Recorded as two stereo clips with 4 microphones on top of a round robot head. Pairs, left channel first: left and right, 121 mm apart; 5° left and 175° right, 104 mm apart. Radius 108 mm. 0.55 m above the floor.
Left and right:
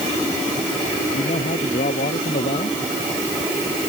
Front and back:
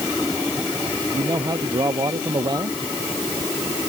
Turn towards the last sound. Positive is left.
turn(degrees=135)